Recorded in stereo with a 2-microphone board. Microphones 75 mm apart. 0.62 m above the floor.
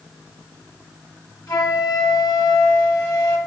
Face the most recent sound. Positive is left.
turn(degrees=65)  # may be behind; listen again after turning